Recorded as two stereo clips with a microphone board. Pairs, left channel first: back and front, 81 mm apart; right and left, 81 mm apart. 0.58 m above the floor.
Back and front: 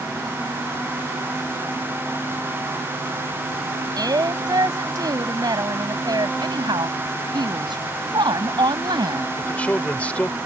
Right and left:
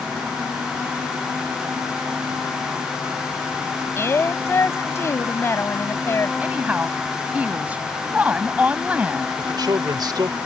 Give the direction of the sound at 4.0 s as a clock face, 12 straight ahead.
1 o'clock.